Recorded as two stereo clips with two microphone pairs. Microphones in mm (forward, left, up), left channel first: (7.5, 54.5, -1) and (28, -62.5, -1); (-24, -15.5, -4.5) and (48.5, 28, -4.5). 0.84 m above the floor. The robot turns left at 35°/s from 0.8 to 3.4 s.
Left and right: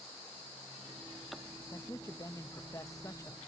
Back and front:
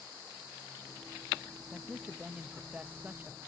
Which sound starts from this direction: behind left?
A man speaking, at 1.7 s.